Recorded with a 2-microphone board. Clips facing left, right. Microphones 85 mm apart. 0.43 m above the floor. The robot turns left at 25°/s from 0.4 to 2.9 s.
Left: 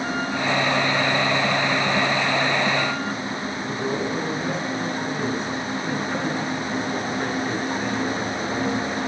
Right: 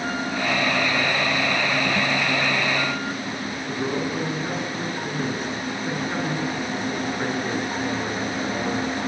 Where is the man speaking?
5° right (ahead or behind), 6.5 m.